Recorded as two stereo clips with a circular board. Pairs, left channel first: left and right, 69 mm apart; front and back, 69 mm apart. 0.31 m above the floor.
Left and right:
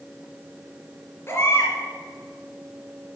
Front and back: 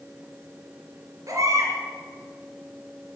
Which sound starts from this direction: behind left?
A baby crying, at 1.3 s.